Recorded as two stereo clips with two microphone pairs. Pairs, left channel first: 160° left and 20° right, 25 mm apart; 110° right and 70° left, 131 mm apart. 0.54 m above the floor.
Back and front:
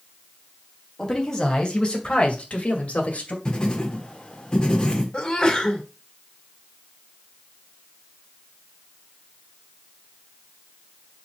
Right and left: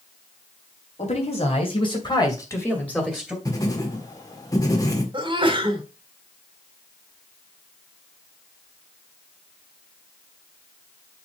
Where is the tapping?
I don't hear tapping.